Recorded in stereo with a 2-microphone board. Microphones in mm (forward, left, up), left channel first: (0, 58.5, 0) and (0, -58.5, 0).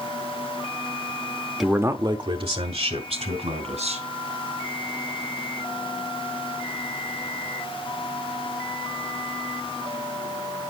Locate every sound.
1.6 s a man speaking: centre (ahead or behind), 0.7 m; by 4.0 s 80° right, 3.5 m